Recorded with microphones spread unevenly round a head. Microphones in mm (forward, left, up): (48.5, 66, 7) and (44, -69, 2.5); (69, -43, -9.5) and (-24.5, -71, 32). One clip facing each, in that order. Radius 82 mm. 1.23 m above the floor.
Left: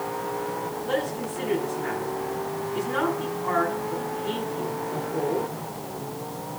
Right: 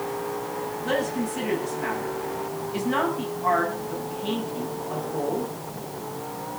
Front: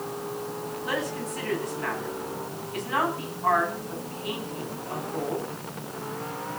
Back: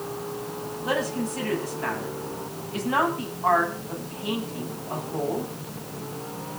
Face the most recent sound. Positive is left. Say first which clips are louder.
# right 3 dB, back 5 dB
turn(degrees=-110)